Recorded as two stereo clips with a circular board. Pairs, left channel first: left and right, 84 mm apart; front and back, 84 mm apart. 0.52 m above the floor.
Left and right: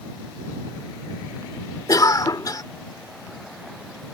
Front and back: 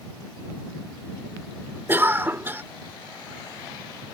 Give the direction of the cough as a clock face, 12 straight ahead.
8 o'clock.